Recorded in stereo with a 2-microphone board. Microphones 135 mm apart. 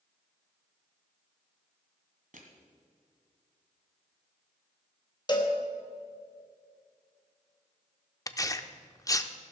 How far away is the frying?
I don't hear frying.